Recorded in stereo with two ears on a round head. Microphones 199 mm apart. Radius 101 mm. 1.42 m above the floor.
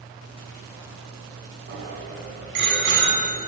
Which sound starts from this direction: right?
A bicycle bell, at 1.7 s.